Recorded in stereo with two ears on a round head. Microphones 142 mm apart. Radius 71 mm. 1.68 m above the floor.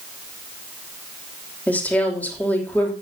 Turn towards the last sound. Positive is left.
turn(degrees=10)  # may be behind; listen again after turning